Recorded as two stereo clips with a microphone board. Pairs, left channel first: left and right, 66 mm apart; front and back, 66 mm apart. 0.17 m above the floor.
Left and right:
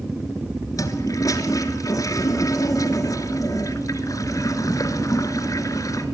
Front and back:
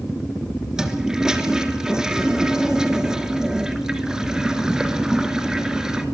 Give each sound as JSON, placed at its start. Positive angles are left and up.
{"t": 0.8, "sound": "a toilet flushing", "azimuth_deg": 100, "distance_m": 1.9}